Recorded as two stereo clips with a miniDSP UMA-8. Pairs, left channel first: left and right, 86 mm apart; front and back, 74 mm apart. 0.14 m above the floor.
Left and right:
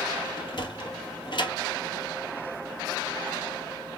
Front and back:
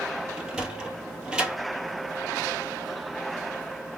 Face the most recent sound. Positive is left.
turn(degrees=105)